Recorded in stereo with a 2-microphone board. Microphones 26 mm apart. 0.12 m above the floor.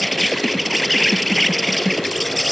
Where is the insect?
Centre (ahead or behind).